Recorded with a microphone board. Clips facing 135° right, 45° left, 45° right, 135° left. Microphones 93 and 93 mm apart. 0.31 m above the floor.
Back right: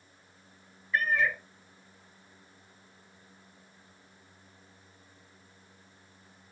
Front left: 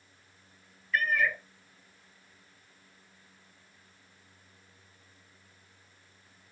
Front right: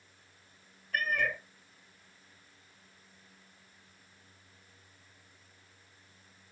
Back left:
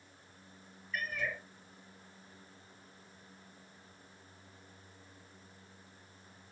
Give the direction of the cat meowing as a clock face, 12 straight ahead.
2 o'clock.